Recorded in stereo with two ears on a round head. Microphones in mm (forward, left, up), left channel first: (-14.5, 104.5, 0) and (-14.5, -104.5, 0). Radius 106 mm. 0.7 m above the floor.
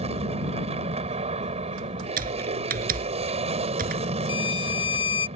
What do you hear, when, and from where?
0.0 s an aircraft: 30° right (ahead or behind)
2.2 s typing on a keyboard: 40° right (ahead or behind)
4.3 s a violin: 25° left (ahead or behind)